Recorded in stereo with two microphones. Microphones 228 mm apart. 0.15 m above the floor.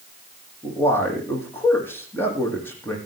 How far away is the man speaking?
About 7 m.